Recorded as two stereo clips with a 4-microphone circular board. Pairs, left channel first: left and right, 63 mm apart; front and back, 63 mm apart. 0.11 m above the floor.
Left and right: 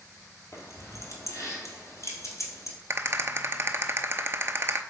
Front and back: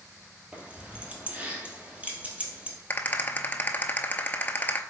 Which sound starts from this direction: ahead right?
A rattle, at 2.9 s.